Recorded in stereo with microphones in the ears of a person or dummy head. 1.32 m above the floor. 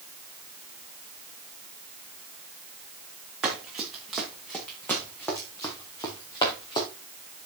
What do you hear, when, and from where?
3.4 s running footsteps: 5° right (ahead or behind), 3.5 m; by 6.9 s 30° left (ahead or behind), 4 m